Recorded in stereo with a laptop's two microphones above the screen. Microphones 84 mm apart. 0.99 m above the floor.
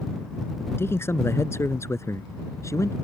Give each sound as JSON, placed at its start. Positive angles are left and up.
{"t": 0.8, "sound": "a man speaking", "side_deg": 30}